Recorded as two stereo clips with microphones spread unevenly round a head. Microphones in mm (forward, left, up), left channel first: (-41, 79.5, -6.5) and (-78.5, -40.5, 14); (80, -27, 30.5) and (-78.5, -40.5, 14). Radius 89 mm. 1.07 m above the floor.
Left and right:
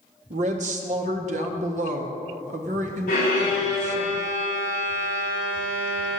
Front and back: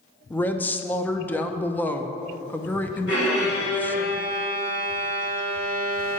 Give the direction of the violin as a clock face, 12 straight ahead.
11 o'clock.